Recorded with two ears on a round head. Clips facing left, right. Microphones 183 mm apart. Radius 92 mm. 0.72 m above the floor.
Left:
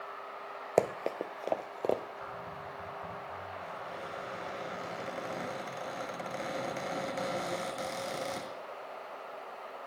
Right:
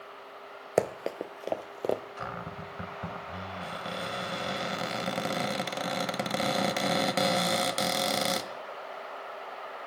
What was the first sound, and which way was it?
Running footsteps, 5° right (ahead or behind).